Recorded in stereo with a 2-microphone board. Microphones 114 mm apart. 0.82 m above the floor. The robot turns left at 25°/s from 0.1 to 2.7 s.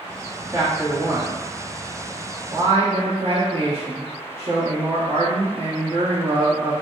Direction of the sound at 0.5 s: 15° right.